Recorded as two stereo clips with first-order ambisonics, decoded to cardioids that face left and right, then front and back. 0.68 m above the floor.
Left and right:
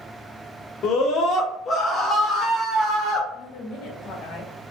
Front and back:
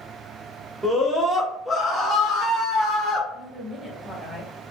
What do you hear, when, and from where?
0.8 s a scream: 100° left, 1.2 m; by 3.2 s 25° right, 1.2 m
3.3 s a woman speaking: 80° left, 1.2 m